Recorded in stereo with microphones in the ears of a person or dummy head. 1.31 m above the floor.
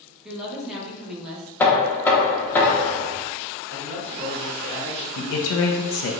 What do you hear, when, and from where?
0.2 s a woman speaking: 5° right (ahead or behind), 0.8 m
1.6 s knocking: 10° left (ahead or behind), 0.5 m
3.7 s a man speaking: 55° right (ahead or behind), 1.6 m
5.2 s a man speaking: 75° left (ahead or behind), 0.6 m